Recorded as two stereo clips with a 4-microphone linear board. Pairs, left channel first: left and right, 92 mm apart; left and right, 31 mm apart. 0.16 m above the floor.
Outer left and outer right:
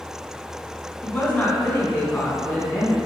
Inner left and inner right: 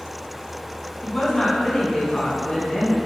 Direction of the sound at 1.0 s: 15° left (ahead or behind).